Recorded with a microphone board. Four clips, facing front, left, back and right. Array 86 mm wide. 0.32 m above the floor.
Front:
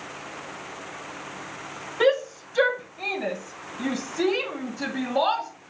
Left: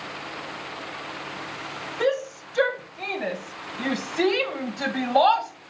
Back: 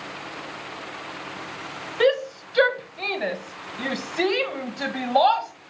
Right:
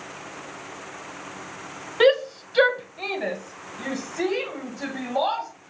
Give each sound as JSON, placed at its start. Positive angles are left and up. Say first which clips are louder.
{"t": 2.0, "sound": "a shout", "louder": "right 6 dB, back 1 dB", "azimuth_deg": -105, "distance_m": 1.3}